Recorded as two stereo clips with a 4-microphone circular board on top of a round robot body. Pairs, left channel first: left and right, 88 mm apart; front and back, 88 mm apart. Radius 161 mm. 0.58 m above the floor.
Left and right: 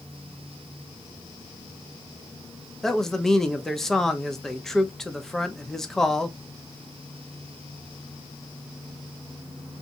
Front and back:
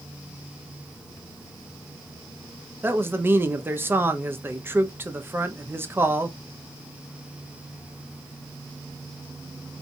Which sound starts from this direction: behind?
A man speaking, at 2.8 s.